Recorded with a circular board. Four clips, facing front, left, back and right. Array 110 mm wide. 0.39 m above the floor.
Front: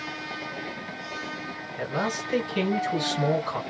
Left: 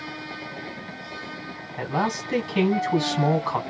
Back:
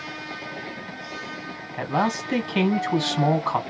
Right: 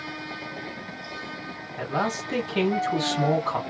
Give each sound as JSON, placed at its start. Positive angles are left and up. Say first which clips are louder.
{"t": 1.8, "sound": "a man speaking", "louder": "left 2 dB, back 5 dB", "azimuth_deg": 170, "distance_m": 2.0}